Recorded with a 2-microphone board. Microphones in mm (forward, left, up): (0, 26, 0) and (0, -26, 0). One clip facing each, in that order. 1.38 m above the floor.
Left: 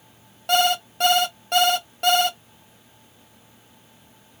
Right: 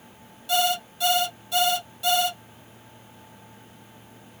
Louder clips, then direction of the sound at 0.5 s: Left 4 dB; 60° left (ahead or behind).